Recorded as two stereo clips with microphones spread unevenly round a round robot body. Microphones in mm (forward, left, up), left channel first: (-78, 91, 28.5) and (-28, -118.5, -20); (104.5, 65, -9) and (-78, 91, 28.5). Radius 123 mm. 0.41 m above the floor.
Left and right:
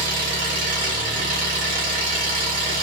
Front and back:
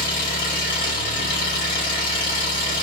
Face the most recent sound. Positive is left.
turn(degrees=-40)